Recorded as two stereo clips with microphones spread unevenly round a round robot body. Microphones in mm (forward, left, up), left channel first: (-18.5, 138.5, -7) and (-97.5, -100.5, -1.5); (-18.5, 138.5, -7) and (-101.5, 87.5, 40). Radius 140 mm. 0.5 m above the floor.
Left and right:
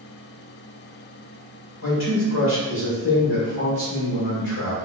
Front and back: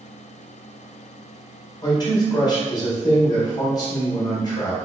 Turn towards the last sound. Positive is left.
turn(degrees=30)